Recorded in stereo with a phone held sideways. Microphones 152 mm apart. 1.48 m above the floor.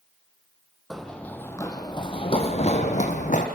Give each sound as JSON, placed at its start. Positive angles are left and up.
{"t": 0.9, "sound": "running footsteps", "side_deg": 0, "distance_m": 2.0}